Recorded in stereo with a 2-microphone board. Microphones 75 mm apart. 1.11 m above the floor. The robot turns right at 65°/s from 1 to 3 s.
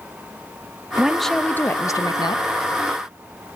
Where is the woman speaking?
10° right, 0.8 m; by 2.4 s 80° left, 0.8 m.